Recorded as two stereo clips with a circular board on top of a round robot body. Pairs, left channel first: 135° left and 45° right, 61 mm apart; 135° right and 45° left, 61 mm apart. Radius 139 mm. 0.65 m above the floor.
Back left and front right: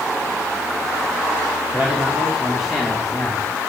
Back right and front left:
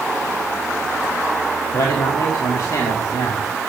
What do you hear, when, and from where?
1.7 s a man speaking: 120° right, 2.5 m; by 3.5 s 140° right, 2.5 m